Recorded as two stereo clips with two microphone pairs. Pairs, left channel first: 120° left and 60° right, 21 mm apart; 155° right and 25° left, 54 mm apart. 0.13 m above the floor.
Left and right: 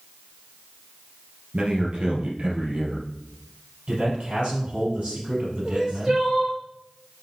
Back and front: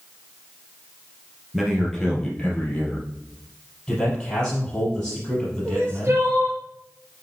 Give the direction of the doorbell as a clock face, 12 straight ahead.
I don't hear a doorbell.